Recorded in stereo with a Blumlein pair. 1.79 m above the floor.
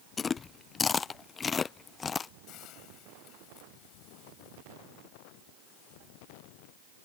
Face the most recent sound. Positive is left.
turn(degrees=35)